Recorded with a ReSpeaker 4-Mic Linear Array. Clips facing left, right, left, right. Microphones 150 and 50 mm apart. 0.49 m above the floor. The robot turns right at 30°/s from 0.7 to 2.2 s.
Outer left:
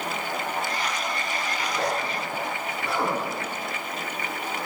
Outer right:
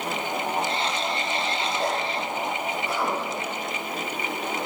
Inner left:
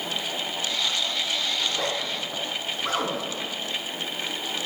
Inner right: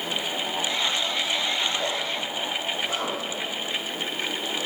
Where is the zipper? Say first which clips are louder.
Outer left 2 dB, inner right 1 dB; 80° left, 6.5 m; by 3.5 s 70° left (ahead or behind), 6.5 m.